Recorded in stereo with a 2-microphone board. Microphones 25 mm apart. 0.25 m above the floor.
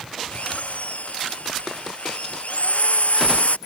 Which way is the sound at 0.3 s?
70° left (ahead or behind).